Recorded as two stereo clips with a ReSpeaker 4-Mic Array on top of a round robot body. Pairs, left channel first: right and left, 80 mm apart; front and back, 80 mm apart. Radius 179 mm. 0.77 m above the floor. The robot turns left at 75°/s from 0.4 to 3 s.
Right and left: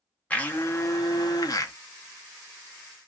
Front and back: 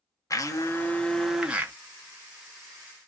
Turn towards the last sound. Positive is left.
turn(degrees=140)